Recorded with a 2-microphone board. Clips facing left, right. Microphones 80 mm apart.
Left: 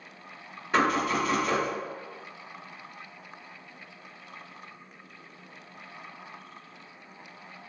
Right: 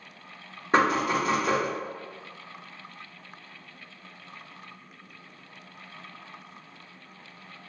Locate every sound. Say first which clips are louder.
0.7 s knocking: right 2 dB; 35° right (ahead or behind), 1.6 m